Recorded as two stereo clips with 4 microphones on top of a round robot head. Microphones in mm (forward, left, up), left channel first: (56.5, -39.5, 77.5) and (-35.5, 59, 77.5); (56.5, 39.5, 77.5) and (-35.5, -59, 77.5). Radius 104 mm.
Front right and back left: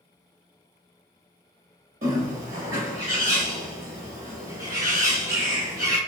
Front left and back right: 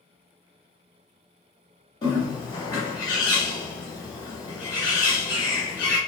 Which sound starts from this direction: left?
A bird, at 2.0 s.